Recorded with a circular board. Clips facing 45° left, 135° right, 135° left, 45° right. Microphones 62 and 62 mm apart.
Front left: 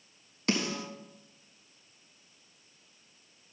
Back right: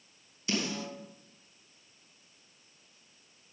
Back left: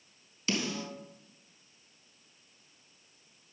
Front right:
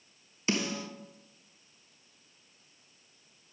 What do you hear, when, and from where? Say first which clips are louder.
0.5 s a snare drum: front left 3 dB, front right 2 dB; 20° left, 3.5 m